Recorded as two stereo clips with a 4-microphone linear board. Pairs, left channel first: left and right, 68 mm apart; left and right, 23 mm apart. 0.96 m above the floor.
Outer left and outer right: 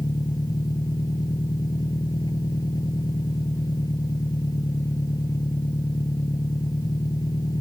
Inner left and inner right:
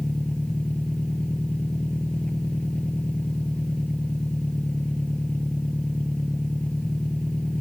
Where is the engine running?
60° left (ahead or behind).